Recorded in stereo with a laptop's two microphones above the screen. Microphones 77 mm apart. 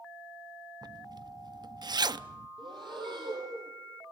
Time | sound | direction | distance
0.8 | a zipper | 65° right (ahead or behind) | 0.5 m
2.6 | breathing | 80° right | 6 m